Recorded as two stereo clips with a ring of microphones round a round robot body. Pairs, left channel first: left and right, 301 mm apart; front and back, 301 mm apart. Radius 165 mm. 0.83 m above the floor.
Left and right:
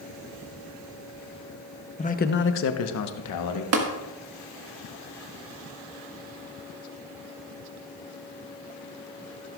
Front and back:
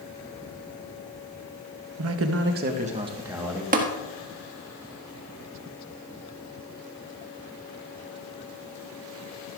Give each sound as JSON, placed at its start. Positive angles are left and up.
{"t": 2.0, "sound": "a man speaking", "azimuth_deg": 155, "distance_m": 0.9}
{"t": 3.7, "sound": "tapping", "azimuth_deg": -120, "distance_m": 1.5}